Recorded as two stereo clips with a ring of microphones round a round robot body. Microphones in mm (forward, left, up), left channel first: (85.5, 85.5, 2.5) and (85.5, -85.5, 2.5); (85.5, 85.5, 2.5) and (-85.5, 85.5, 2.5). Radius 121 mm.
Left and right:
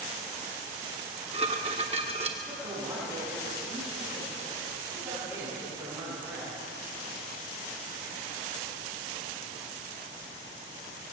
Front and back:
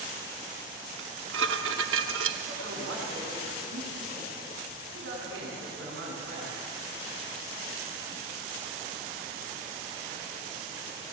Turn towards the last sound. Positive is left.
turn(degrees=-175)